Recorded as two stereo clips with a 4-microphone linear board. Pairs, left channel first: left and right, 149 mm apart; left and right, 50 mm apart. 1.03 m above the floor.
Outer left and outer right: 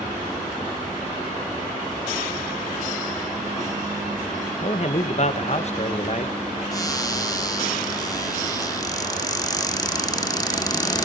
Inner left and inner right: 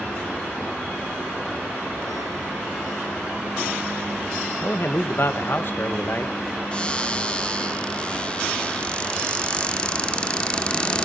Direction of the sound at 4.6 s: 50° left (ahead or behind).